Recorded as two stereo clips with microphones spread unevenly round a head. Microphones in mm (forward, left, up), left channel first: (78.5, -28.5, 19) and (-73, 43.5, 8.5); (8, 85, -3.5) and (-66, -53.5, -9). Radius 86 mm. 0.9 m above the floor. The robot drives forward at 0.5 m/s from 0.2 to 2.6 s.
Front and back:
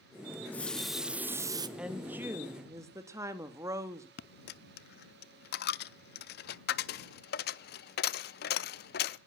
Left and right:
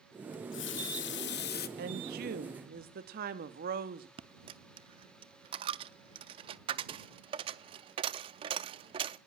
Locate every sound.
0.3 s a running tap: 50° left, 1.1 m; by 1.7 s 90° left, 0.9 m
1.8 s a woman speaking: 125° right, 1.5 m; by 4.1 s 135° right, 1.8 m
4.2 s a dropped coin: 55° right, 0.5 m